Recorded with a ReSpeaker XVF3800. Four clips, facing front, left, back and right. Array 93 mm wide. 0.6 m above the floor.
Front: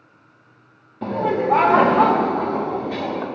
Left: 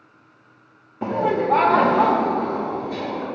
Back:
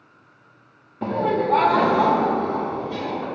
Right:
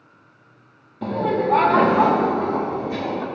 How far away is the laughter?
About 0.6 m.